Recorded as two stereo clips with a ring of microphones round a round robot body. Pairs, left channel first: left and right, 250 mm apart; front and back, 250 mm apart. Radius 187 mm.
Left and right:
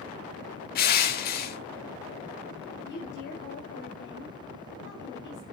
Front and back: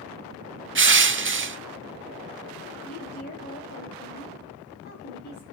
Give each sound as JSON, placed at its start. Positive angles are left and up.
{"t": 0.8, "sound": "crushing", "azimuth_deg": 145, "distance_m": 0.9}
{"t": 2.8, "sound": "a woman speaking", "azimuth_deg": 50, "distance_m": 2.5}